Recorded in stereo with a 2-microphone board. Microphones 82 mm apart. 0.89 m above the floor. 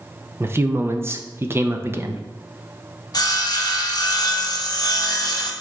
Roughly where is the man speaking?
Right.